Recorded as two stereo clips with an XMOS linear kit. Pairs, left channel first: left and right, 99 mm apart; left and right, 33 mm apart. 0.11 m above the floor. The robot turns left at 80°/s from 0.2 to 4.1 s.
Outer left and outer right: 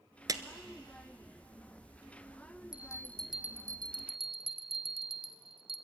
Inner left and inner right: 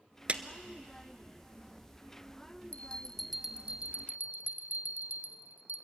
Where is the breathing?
No breathing in this recording.